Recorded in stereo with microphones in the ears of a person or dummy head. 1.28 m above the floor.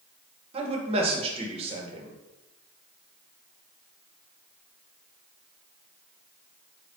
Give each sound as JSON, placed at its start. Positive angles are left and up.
{"t": 0.5, "sound": "a man speaking", "side_deg": -40, "distance_m": 0.9}